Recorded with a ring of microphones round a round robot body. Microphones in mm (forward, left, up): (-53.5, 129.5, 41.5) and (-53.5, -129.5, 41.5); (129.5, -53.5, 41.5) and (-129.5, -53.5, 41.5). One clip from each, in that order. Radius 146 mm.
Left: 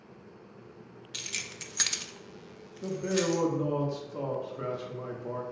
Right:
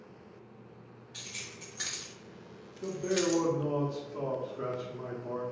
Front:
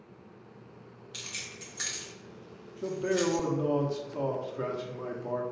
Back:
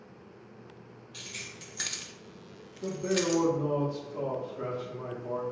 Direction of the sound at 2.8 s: 25° left.